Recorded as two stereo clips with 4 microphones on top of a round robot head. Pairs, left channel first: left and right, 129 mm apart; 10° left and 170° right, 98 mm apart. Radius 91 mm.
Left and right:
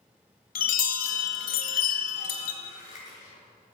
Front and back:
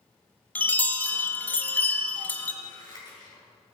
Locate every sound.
0.6 s a chime: 85° left, 1.4 m
2.6 s scissors: 55° left, 7 m